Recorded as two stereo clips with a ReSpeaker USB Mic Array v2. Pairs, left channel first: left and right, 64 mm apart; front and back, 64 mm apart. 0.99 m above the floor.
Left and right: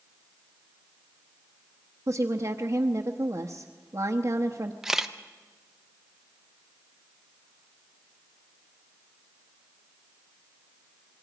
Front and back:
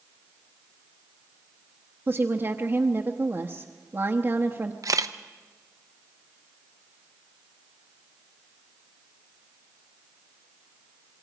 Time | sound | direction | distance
2.1 | a woman speaking | 125° right | 0.9 m
4.8 | a camera shutter | 175° right | 0.7 m